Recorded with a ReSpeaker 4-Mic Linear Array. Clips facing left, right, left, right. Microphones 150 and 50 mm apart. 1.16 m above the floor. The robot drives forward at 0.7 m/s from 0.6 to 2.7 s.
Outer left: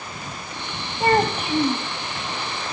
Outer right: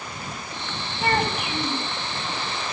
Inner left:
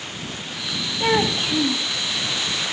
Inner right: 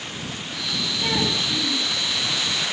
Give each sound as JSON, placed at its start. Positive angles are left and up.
{"t": 1.0, "sound": "a child speaking", "side_deg": 30, "distance_m": 2.0}